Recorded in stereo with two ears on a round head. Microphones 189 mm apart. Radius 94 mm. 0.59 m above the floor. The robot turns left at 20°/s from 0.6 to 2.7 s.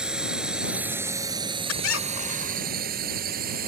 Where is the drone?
5° right (ahead or behind); by 3.7 s 45° right (ahead or behind).